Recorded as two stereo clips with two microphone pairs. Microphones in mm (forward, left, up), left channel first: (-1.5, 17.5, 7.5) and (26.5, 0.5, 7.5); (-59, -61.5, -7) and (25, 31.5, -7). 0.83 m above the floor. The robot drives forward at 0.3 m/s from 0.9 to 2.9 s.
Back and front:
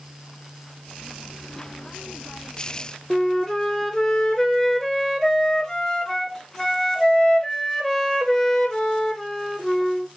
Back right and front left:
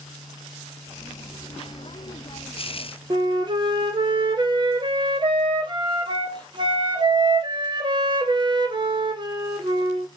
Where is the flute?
75° left, 0.5 m.